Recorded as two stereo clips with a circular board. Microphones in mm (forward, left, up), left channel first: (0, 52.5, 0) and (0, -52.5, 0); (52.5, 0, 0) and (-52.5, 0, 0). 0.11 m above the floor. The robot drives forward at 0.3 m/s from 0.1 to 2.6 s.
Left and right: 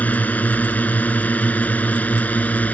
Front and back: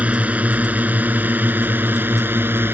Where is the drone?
130° left; by 2.8 s 145° left.